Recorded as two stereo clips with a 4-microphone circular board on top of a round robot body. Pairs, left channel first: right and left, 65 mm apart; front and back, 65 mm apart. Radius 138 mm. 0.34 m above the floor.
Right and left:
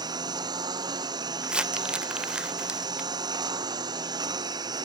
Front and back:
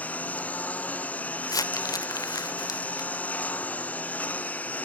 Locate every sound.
0.0 s a lawn mower: 70° left
1.4 s crumpling: 15° left